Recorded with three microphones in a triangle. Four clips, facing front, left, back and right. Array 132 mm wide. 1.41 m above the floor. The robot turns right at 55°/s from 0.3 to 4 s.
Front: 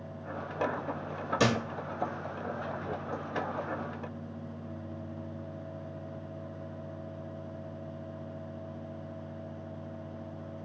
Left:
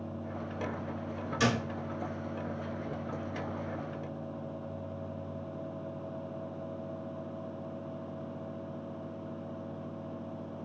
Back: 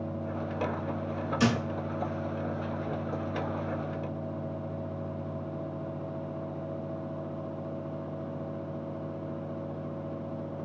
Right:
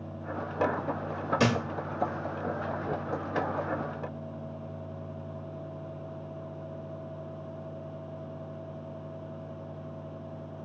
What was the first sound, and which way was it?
A thud, 50° right.